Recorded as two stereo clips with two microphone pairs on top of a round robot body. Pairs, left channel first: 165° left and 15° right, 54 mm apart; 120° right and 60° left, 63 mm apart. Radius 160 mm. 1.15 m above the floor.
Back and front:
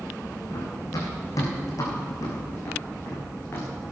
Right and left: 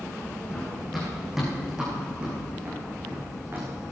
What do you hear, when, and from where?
0.5 s running footsteps: 160° left, 4.5 m; by 3.7 s 115° left, 5.5 m